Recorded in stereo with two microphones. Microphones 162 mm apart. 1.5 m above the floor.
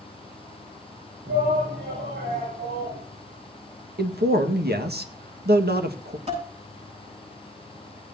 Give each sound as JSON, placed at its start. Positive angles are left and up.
{"t": 1.3, "sound": "a shout", "side_deg": -75, "distance_m": 8.5}
{"t": 4.0, "sound": "a man speaking", "side_deg": -80, "distance_m": 1.6}
{"t": 6.3, "sound": "dishes clattering", "side_deg": -40, "distance_m": 8.0}